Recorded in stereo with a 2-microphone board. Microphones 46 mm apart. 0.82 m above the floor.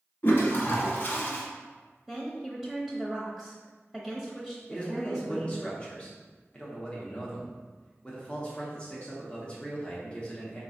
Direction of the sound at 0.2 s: 45° left (ahead or behind).